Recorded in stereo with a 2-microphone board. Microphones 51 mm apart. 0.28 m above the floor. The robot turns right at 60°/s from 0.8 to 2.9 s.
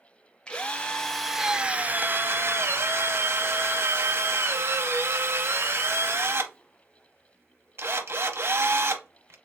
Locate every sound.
0.5 s a drill: 155° left, 0.6 m; by 9.3 s 80° right, 0.6 m